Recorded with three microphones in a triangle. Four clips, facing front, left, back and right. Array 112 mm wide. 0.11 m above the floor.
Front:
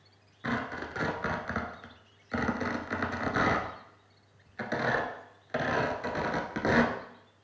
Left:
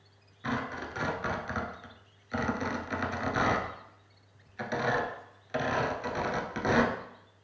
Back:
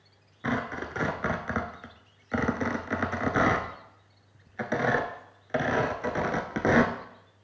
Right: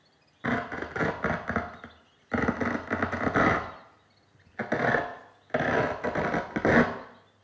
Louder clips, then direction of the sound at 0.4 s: Right 4 dB, back 3 dB; 110° right.